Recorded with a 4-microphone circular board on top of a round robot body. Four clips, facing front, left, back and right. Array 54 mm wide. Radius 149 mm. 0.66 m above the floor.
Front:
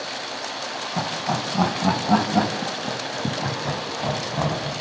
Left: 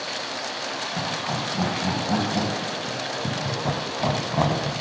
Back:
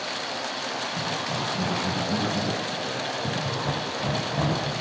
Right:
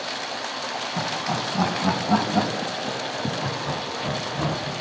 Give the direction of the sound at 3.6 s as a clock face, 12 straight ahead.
9 o'clock.